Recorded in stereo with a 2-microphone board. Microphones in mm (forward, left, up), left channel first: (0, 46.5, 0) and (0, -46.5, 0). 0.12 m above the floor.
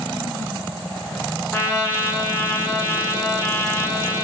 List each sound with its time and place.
1.5 s a trumpet: 25° left (ahead or behind), 0.9 m